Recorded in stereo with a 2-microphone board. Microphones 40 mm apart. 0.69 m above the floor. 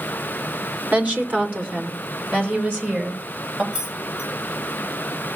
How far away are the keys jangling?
About 6.5 m.